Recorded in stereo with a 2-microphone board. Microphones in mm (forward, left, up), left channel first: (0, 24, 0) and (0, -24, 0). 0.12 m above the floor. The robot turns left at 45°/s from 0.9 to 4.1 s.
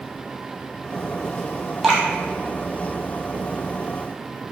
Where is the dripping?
5° right (ahead or behind), 0.9 m; by 2.0 s 15° right (ahead or behind), 0.9 m.